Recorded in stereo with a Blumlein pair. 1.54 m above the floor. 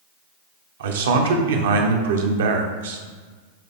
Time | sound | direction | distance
0.8 | a man speaking | 60° right | 1.0 m